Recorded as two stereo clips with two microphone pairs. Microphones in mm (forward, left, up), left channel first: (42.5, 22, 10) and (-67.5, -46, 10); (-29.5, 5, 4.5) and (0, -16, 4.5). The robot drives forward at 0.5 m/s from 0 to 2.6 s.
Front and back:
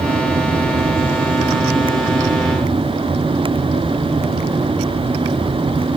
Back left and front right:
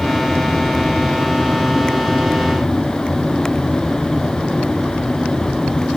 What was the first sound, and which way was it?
Only background noise.